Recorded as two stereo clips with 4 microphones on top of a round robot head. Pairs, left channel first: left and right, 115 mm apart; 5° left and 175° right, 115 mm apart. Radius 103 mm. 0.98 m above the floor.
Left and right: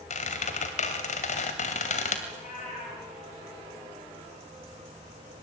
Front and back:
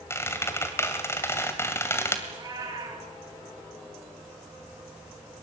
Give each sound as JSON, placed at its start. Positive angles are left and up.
{"t": 0.1, "sound": "a squeak", "azimuth_deg": 75, "distance_m": 2.5}
{"t": 2.3, "sound": "a cat meowing", "azimuth_deg": 130, "distance_m": 5.0}